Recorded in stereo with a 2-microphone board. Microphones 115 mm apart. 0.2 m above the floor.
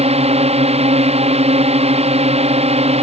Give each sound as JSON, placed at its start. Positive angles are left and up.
{"t": 0.0, "sound": "a drone", "side_deg": -60}